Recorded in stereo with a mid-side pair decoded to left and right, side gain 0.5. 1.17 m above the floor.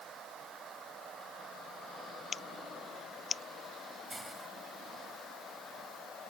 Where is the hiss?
15° right.